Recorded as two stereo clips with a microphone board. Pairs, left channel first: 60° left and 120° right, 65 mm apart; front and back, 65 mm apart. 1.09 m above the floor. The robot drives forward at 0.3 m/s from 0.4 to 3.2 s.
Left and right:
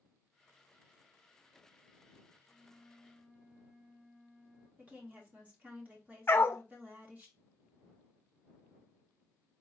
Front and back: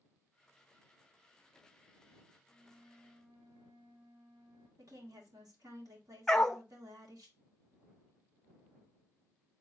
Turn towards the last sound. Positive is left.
turn(degrees=80)